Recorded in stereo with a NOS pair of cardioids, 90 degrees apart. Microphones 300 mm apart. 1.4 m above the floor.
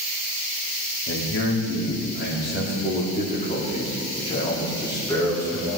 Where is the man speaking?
40° left, 4 m; by 5.8 s 5° left, 4.5 m.